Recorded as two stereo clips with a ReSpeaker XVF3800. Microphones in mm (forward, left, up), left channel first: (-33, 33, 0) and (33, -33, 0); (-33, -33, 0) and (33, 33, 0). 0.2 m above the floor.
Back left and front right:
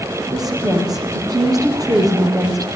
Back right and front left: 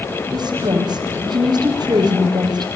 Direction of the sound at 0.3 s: 5° left.